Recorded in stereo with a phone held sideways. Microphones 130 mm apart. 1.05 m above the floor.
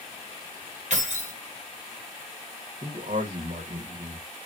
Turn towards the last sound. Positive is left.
turn(degrees=-60)  # may be behind; listen again after turning